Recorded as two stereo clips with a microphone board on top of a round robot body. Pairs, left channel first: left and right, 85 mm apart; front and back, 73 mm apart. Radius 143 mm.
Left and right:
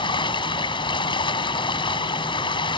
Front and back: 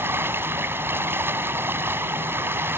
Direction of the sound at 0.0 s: 120° left.